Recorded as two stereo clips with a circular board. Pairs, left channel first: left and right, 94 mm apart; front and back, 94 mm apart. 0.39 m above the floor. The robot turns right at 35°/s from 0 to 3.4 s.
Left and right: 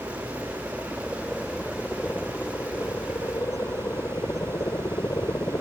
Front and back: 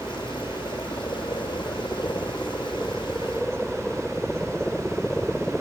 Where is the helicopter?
55° right; by 5.6 s 80° left.